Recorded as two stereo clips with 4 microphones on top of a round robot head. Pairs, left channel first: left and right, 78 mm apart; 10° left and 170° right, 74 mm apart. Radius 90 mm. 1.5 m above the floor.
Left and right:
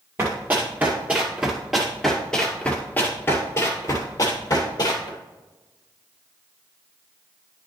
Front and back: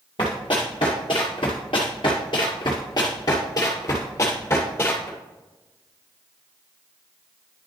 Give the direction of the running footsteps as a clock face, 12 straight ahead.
1 o'clock.